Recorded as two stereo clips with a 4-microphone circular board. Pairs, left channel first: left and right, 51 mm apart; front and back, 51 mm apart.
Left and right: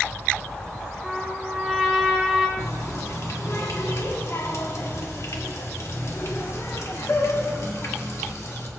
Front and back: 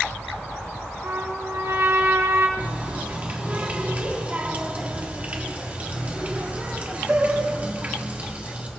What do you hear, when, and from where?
1.0 s a trumpet: 170° left, 4 m
2.6 s a running tap: 120° left, 1.7 m